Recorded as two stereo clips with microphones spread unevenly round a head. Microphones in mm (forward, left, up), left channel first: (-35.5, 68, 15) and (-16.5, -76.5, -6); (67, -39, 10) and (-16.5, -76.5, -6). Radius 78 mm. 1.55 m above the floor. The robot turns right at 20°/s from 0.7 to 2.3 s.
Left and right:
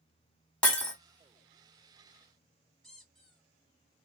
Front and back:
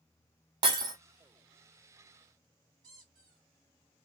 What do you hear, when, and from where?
0.6 s breaking glass: 170° left, 1.4 m; by 0.9 s 175° left, 1.4 m
2.8 s a squeak: 170° left, 1.3 m